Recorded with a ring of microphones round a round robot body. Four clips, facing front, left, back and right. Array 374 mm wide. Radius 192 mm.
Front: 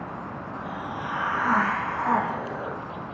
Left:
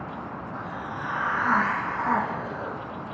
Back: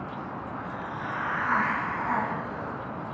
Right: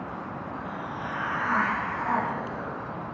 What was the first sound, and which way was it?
A hiss, 40° left.